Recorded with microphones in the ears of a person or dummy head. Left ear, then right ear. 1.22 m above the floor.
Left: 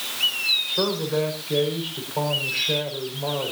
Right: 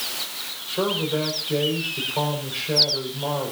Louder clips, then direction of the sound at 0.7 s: Even; 10° left (ahead or behind).